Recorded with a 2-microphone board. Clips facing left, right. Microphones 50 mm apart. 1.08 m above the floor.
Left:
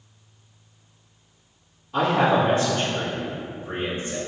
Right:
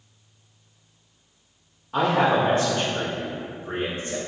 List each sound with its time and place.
1.9 s a man speaking: 40° right (ahead or behind), 1.1 m; by 4.2 s 60° right (ahead or behind), 2 m